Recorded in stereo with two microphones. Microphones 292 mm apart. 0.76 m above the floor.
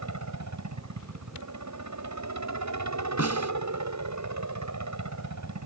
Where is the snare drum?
55° left (ahead or behind).